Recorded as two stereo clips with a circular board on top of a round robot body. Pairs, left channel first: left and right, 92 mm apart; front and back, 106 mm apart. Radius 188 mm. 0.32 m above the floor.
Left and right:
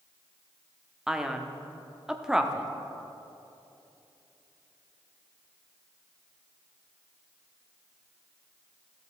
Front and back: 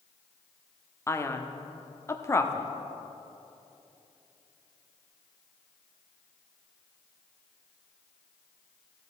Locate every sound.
1.1 s a man speaking: 15° right, 1.0 m